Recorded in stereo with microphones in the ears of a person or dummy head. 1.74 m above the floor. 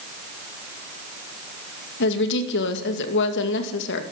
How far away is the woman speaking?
About 2 m.